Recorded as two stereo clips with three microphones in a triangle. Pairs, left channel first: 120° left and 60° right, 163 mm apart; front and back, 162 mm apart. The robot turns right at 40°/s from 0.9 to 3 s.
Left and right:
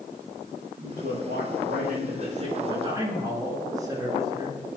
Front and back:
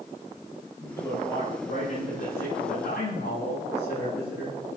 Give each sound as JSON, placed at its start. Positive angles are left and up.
{"t": 0.8, "sound": "a man speaking", "azimuth_deg": -75, "distance_m": 10.0}